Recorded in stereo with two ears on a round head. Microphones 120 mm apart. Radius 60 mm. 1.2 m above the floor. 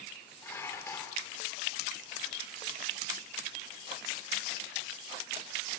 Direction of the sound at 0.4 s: 20° left (ahead or behind).